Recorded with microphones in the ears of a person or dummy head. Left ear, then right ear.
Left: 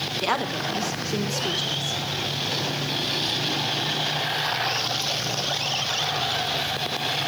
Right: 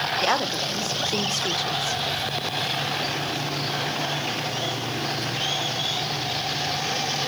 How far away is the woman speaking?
About 1.2 m.